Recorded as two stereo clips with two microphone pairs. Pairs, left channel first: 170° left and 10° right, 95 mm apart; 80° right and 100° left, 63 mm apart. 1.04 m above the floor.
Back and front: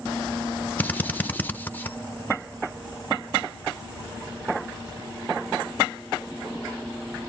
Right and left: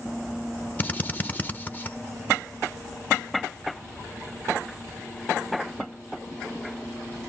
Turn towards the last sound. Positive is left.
turn(degrees=-130)